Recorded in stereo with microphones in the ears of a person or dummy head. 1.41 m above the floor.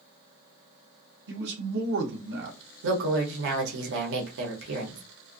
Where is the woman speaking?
70° right (ahead or behind), 1.0 m.